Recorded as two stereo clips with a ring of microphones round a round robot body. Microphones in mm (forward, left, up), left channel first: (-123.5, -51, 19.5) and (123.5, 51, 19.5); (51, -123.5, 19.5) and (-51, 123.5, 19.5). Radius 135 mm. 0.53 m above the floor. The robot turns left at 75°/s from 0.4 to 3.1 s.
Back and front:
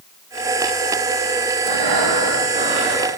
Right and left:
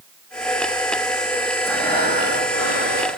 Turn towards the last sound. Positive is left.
turn(degrees=-85)